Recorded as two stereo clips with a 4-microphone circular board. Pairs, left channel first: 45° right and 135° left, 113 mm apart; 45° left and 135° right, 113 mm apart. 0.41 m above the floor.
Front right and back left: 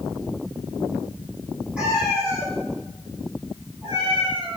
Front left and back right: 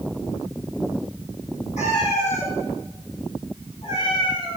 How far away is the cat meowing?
About 6 m.